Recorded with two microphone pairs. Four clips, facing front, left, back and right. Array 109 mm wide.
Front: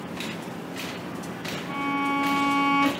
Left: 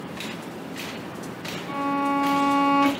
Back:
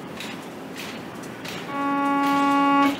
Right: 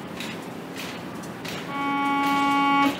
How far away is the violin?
About 1.5 m.